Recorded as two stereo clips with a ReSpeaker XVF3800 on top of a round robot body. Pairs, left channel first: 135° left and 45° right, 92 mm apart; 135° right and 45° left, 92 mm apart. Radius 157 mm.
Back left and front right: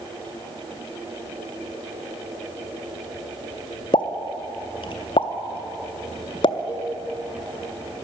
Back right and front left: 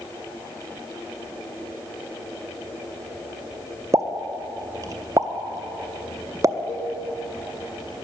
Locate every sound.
3.9 s a pop: 100° left, 0.6 m
6.7 s a cowbell: 110° right, 3.5 m